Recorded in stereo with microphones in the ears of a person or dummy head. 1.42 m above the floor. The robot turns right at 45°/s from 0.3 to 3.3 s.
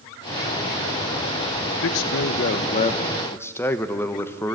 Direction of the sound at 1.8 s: 100° left.